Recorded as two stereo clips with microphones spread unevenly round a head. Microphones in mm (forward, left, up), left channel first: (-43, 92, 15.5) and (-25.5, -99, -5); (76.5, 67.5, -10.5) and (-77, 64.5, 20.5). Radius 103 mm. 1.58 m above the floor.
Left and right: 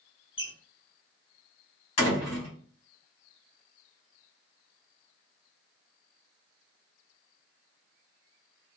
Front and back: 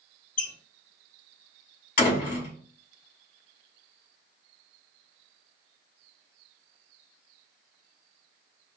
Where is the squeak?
40° left, 1.1 m.